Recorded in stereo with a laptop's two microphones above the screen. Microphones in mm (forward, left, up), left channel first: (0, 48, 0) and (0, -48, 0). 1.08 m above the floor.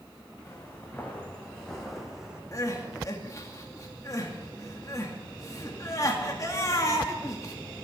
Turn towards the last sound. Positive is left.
turn(degrees=35)  # may be behind; listen again after turning